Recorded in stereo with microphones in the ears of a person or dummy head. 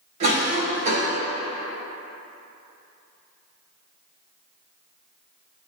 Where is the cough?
35° right (ahead or behind), 1.7 m.